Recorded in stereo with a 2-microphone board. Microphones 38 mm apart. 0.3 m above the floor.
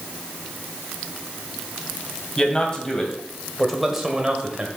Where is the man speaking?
25° left (ahead or behind), 2.0 m; by 4.7 s 25° right (ahead or behind), 1.3 m.